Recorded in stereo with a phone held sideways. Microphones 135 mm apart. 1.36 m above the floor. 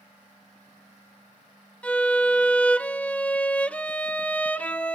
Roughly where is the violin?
Centre.